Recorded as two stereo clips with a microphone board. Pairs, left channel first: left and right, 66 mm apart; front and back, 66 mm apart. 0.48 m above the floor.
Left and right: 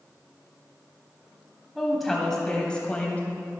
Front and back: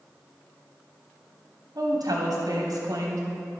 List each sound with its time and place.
1.8 s a woman speaking: straight behind, 3 m; by 3.6 s 145° left, 2.5 m